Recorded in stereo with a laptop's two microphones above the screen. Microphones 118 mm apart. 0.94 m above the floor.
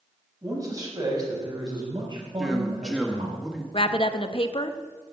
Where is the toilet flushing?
No toilet flushing in this recording.